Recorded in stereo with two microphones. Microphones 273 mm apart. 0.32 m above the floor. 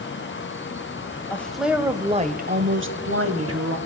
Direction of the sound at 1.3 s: 5° left (ahead or behind).